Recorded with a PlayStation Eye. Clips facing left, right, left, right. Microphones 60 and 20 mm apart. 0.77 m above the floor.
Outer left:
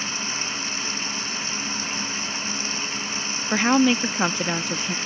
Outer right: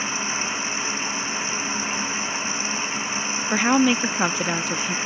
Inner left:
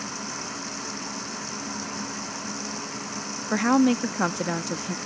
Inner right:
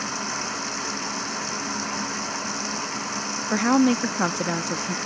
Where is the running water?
20° right (ahead or behind).